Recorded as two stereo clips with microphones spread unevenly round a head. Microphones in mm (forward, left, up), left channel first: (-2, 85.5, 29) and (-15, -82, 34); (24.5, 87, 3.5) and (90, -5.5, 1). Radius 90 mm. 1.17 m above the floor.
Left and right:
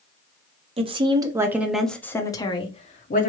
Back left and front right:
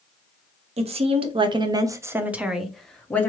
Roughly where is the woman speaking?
Ahead right.